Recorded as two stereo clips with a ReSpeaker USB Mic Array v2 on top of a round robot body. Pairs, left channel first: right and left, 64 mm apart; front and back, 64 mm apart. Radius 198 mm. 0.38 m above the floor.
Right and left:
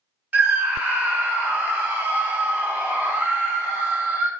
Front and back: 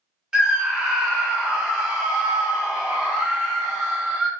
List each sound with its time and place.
0.3 s a scream: 115° left, 1.3 m